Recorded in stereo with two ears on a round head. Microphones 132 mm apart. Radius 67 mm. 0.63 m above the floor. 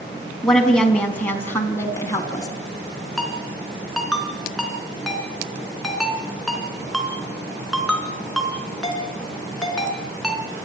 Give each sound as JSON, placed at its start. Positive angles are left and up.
{"t": 0.4, "sound": "a woman speaking", "side_deg": 5, "distance_m": 4.5}
{"t": 3.2, "sound": "a ringtone", "side_deg": 0, "distance_m": 3.0}